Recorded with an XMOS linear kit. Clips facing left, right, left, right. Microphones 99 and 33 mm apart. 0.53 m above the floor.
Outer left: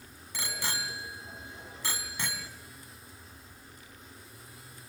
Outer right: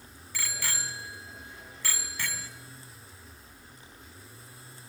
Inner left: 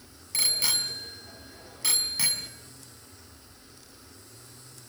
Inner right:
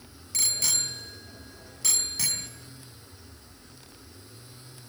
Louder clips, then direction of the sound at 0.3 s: Outer left 1 dB, inner left 2 dB; 20° left (ahead or behind).